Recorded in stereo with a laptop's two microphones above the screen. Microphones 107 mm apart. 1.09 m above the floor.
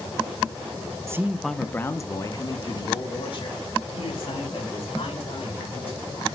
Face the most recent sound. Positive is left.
turn(degrees=60)  # may be behind; listen again after turning